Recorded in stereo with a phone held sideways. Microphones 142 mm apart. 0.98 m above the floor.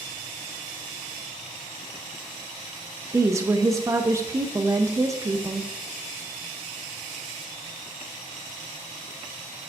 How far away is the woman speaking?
About 0.5 m.